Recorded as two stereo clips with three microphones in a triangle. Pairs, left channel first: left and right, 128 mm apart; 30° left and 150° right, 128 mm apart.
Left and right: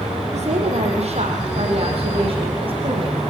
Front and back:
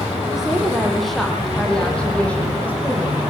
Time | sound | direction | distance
0.3 | a woman speaking | 65° right | 4.5 m